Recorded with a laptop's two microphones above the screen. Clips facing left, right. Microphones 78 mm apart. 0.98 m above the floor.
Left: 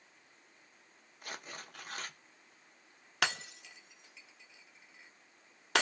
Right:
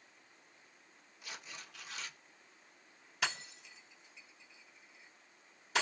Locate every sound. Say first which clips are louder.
1.2 s tearing paper: left 4 dB; 45° left (ahead or behind), 0.6 m
3.2 s breaking glass: left 4 dB; 70° left (ahead or behind), 1.0 m